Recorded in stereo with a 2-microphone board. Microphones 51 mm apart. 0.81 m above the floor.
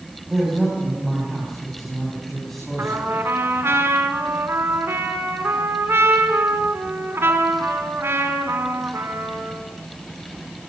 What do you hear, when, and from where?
0.3 s a man speaking: 5° right (ahead or behind), 6.5 m; by 3.1 s 10° left (ahead or behind), 7.5 m
2.8 s a trumpet: 55° right (ahead or behind), 4 m